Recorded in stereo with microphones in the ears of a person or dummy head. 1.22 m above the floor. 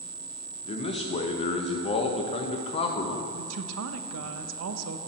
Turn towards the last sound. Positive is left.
turn(degrees=-70)  # may be behind; listen again after turning